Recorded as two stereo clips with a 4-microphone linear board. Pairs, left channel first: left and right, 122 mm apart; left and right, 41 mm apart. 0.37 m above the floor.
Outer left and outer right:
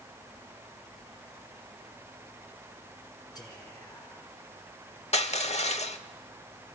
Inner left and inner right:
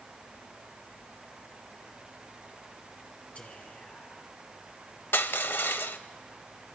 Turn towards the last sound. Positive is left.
turn(degrees=60)  # may be behind; listen again after turning